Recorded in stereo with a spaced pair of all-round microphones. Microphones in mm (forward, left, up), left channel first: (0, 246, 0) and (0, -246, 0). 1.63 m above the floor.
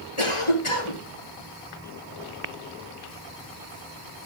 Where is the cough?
85° left, 3.5 m.